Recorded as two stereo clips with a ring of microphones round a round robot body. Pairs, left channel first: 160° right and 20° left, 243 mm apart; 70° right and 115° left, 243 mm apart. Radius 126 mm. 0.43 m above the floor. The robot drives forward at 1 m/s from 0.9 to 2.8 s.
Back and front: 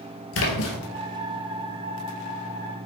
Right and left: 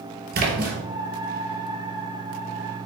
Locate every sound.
0.3 s a splash: 165° left, 1.7 m